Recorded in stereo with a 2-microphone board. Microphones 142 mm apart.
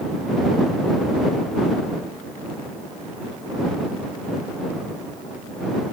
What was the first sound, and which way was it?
Only background noise.